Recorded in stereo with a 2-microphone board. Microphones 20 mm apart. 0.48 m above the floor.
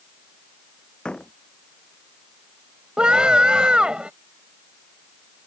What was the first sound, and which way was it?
A door slam, 45° left (ahead or behind).